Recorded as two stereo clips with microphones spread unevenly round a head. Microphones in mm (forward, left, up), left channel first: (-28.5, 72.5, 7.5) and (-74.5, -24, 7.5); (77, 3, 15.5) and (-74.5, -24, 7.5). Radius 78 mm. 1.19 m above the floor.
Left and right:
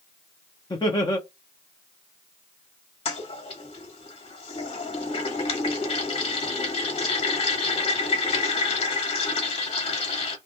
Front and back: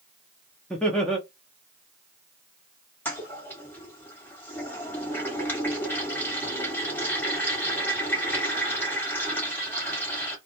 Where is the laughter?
95° left, 0.6 m.